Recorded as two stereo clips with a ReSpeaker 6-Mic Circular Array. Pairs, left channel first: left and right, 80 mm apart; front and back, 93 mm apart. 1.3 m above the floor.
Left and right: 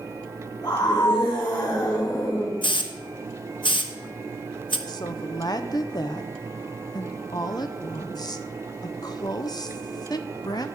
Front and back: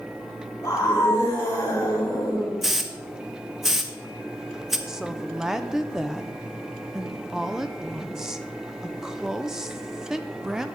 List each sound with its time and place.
0.6 s a scream: 60° left, 5.5 m; by 2.5 s 50° left, 5 m
2.6 s a hiss: 95° left, 1.0 m
4.9 s a woman speaking: 95° left, 0.7 m